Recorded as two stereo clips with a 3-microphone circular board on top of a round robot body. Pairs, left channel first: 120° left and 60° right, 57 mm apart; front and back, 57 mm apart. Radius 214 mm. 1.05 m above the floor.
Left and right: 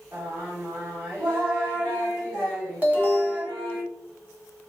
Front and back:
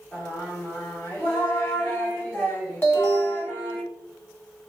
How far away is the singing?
About 1.1 m.